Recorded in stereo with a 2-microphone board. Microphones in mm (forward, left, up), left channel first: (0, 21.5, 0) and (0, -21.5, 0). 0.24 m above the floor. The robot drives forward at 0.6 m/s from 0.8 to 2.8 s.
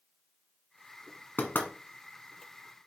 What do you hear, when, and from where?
1.4 s knocking: 55° left (ahead or behind), 1.7 m; by 1.7 s 50° left (ahead or behind), 1.7 m